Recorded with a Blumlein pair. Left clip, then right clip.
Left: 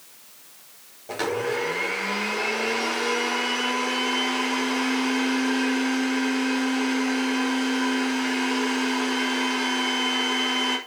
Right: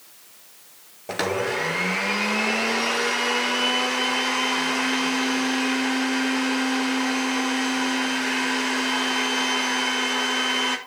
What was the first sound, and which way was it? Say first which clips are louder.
A blender: right 1 dB; 25° right.